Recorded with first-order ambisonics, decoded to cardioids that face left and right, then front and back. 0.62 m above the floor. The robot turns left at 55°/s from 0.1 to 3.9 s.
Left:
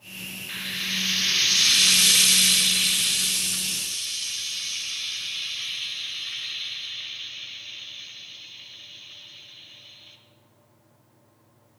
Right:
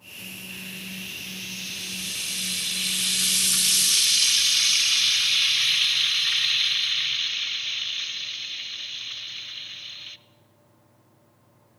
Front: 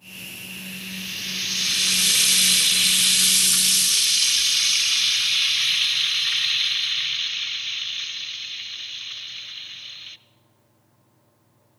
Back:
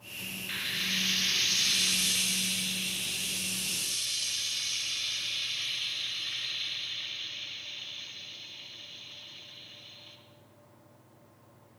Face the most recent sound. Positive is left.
turn(degrees=-45)